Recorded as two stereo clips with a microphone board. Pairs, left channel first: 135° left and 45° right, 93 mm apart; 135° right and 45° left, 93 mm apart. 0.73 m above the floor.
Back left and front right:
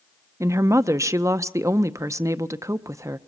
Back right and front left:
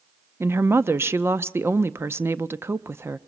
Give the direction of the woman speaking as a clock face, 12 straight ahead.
12 o'clock.